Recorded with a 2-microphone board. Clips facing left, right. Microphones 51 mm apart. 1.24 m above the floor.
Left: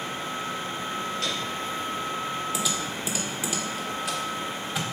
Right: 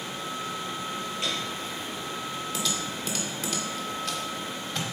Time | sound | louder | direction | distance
1.2 | a piano | left 1 dB | 20° right (ahead or behind) | 5.5 m
2.5 | typing on a keyboard | left 2 dB | 10° left (ahead or behind) | 1.6 m